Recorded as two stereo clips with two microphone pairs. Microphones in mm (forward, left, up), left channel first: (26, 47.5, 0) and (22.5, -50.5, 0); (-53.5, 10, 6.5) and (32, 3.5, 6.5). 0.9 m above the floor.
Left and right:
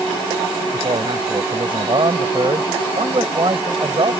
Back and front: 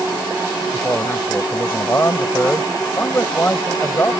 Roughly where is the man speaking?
Behind right.